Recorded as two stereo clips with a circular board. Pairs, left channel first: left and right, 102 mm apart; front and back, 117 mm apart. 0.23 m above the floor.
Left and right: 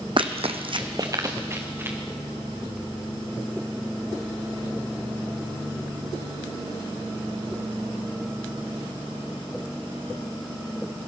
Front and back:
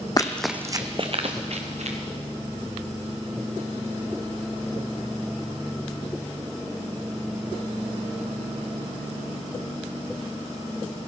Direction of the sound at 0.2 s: 55° right.